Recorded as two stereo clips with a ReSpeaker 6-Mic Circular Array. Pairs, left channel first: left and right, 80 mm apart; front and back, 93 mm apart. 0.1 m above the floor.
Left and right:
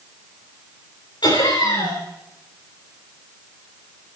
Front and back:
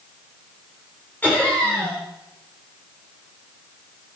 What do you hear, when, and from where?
1.2 s laughter: 75° left, 7 m